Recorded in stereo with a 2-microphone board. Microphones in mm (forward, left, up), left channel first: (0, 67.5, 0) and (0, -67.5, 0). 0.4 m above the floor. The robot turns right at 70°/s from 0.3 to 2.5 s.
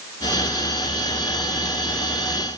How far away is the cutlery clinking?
I don't hear cutlery clinking.